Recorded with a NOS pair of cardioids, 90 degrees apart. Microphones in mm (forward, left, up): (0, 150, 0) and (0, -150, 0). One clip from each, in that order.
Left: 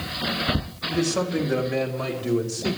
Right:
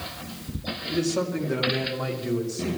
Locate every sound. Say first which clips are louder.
0.9 s a man speaking: left 2 dB; 20° left, 3 m; by 2.8 s 25° left, 5 m